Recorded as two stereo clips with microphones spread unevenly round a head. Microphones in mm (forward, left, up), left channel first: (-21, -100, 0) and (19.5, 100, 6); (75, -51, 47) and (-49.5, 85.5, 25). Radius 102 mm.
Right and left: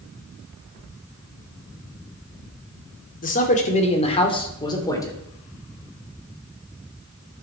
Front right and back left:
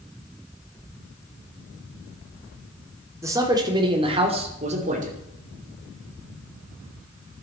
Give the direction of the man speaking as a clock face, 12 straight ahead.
5 o'clock.